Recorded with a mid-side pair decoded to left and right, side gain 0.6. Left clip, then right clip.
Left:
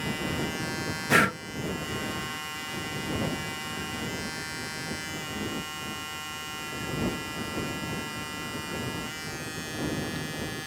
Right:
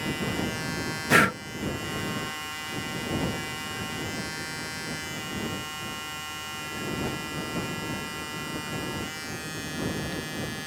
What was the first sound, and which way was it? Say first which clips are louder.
Breathing: right 2 dB; 5° right.